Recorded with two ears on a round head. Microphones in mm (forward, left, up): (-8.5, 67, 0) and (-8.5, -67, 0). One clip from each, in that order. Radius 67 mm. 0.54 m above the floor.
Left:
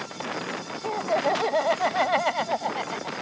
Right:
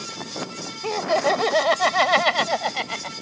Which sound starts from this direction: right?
Laughter, at 0.8 s.